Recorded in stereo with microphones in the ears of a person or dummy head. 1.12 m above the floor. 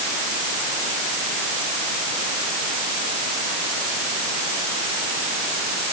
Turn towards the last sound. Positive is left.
No sound to turn to.